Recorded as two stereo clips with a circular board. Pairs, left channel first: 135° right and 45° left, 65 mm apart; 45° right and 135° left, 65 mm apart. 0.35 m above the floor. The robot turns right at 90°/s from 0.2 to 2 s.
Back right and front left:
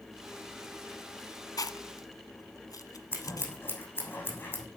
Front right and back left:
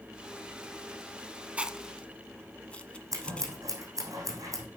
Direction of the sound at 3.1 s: 170° left.